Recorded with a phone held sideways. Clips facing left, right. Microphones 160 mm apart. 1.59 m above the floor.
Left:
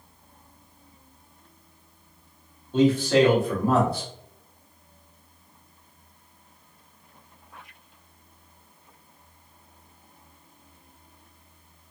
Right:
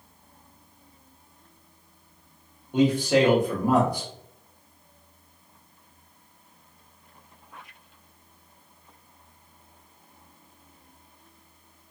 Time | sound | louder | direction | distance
2.7 | a man speaking | left 1 dB | 15° right (ahead or behind) | 0.9 m